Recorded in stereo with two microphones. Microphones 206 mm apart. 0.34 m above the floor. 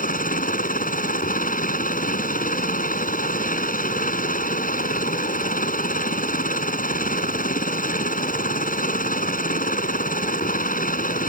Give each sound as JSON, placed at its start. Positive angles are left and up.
{"t": 0.0, "sound": "a helicopter", "side_deg": 40}